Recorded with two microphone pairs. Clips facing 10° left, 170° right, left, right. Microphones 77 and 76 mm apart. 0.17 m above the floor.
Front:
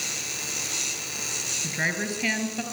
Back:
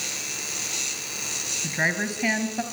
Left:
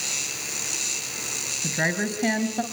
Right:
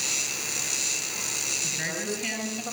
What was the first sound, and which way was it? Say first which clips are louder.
A woman speaking: back 3 dB, left 7 dB; 115° left.